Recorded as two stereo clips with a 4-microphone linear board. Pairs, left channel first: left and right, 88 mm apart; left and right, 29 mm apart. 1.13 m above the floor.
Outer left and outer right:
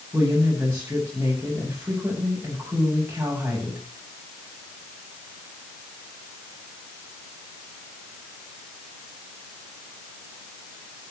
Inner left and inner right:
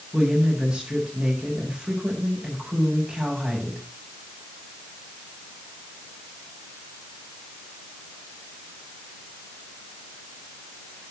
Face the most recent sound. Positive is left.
turn(degrees=-20)  # may be behind; listen again after turning